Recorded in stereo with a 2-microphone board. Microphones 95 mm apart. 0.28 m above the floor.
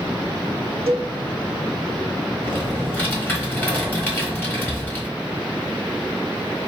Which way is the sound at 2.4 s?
20° left (ahead or behind).